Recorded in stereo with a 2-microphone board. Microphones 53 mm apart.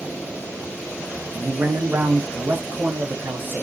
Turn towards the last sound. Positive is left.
turn(degrees=-40)  # may be behind; listen again after turning